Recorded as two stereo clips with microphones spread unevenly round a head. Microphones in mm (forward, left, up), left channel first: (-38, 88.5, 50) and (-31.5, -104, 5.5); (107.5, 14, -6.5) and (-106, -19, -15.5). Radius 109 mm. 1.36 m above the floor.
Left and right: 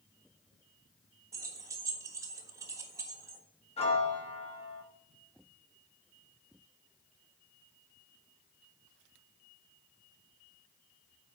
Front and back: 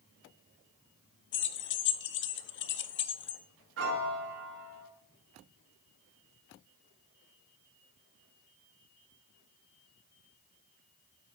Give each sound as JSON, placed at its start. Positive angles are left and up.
{"t": 1.3, "sound": "keys jangling", "azimuth_deg": -5, "distance_m": 0.6}
{"t": 3.8, "sound": "a piano", "azimuth_deg": 150, "distance_m": 1.9}